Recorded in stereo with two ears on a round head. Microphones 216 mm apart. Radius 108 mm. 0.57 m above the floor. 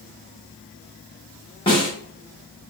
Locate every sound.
1.7 s a snare drum: 20° left (ahead or behind), 1.0 m